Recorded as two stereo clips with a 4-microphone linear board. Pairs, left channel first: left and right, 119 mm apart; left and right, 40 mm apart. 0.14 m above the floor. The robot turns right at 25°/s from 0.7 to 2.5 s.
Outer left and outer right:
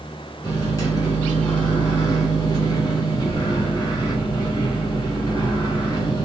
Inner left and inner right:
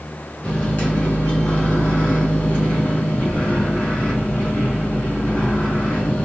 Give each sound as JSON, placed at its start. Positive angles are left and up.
{"t": 0.4, "sound": "a microwave", "azimuth_deg": 65, "distance_m": 1.5}